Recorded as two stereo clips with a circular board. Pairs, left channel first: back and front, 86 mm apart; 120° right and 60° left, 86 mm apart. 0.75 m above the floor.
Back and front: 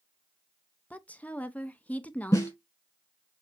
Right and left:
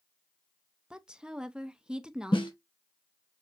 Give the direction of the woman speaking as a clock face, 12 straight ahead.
8 o'clock.